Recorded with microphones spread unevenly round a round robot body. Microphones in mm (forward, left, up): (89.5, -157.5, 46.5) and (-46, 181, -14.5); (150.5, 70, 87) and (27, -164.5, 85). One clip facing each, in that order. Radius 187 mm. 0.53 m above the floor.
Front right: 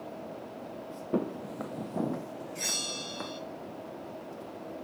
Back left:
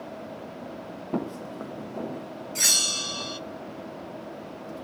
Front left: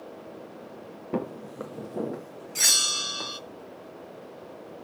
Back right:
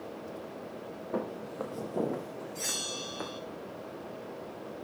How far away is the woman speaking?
I don't hear a woman speaking.